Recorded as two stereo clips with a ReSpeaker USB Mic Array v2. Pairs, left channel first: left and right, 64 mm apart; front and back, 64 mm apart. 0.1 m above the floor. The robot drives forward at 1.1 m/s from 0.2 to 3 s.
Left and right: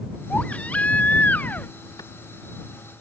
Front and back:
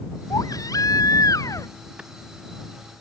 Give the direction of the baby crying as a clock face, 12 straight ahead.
11 o'clock.